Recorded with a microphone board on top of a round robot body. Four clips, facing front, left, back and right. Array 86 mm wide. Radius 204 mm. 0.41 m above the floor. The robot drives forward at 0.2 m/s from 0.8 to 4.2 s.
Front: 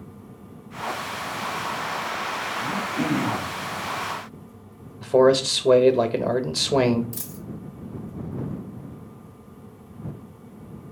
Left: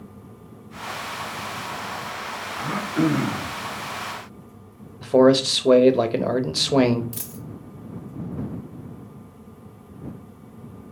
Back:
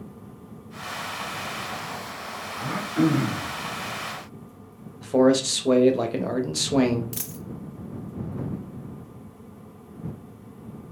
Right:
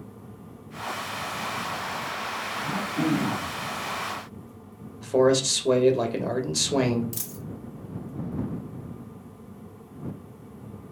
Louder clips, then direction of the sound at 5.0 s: Left 5 dB, front 2 dB; 65° left.